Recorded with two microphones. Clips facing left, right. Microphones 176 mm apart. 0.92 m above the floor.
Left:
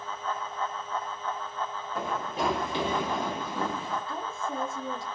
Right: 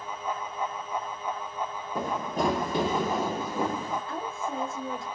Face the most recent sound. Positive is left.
turn(degrees=-55)  # may be behind; listen again after turning